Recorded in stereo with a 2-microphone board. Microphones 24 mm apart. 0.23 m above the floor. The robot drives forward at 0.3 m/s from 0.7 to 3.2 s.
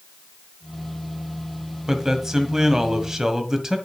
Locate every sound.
1.9 s a man speaking: 20° right (ahead or behind), 1.6 m